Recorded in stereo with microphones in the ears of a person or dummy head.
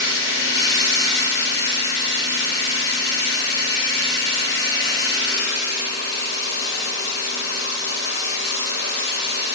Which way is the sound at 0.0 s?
65° left (ahead or behind).